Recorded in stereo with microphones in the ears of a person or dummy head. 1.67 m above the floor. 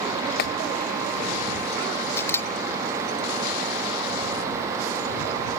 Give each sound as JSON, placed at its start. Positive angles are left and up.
{"t": 0.4, "sound": "a clap", "side_deg": 55}
{"t": 2.2, "sound": "a camera shutter", "side_deg": 15}